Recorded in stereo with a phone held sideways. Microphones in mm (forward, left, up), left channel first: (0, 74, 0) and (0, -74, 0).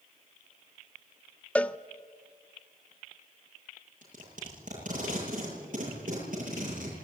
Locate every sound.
1.6 s a cowbell: 10° left (ahead or behind), 0.5 m
4.0 s tape being pulled: 65° right (ahead or behind), 9 m